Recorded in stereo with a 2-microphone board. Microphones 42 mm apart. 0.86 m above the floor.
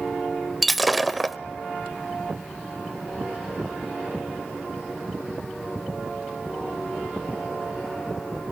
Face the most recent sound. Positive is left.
turn(degrees=0)  # may be behind; listen again after turning